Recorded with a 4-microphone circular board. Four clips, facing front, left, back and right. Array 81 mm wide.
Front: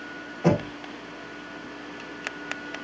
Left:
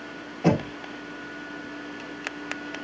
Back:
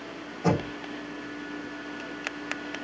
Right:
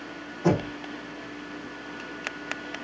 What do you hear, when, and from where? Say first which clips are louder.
0.4 s knocking: left 1 dB, front 3 dB; 60° left, 2.5 m